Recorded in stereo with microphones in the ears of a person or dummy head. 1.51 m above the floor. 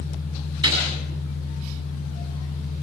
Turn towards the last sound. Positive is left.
turn(degrees=-25)  # may be behind; listen again after turning